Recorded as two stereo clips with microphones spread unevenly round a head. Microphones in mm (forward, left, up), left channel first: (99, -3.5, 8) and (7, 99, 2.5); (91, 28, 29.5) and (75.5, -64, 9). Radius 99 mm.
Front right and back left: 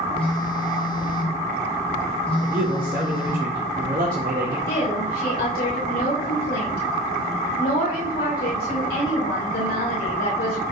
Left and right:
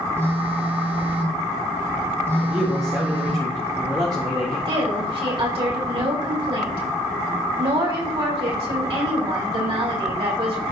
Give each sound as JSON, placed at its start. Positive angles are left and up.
{"t": 0.2, "sound": "a phone buzzing", "azimuth_deg": -30, "distance_m": 1.9}
{"t": 2.4, "sound": "a man speaking", "azimuth_deg": -170, "distance_m": 2.0}
{"t": 4.7, "sound": "a woman speaking", "azimuth_deg": -90, "distance_m": 4.0}